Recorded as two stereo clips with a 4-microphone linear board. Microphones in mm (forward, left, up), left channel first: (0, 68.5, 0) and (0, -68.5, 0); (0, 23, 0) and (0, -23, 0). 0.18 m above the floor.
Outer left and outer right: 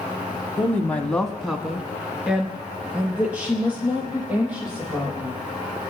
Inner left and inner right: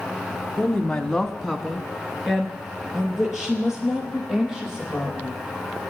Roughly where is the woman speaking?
Centre.